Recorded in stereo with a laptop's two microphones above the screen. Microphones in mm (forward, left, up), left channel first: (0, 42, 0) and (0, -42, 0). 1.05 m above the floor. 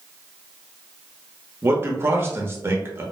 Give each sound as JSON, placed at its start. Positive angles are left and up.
{"t": 1.6, "sound": "a man speaking", "side_deg": -30, "distance_m": 0.9}